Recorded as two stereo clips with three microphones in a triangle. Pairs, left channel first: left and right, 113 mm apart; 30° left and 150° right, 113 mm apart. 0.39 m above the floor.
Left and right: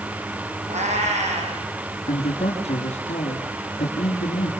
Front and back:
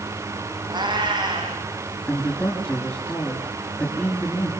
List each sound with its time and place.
0.7 s a cat meowing: 100° right, 6.5 m
2.1 s a man speaking: 105° left, 4.5 m